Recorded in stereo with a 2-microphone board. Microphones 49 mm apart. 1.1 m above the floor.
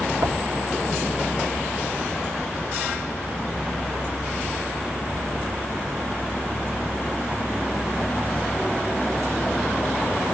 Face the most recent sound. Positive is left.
turn(degrees=-70)  # may be behind; listen again after turning